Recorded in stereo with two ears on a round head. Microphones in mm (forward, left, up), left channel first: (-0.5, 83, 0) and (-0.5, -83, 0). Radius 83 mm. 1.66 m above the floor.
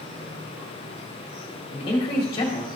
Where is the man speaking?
30° left (ahead or behind), 2 m.